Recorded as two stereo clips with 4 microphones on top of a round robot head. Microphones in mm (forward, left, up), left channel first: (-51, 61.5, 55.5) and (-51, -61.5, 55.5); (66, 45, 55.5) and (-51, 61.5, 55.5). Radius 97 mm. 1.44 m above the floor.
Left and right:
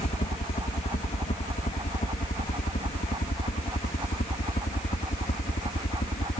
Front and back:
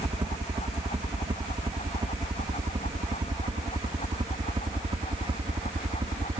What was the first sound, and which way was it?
A helicopter, 120° left.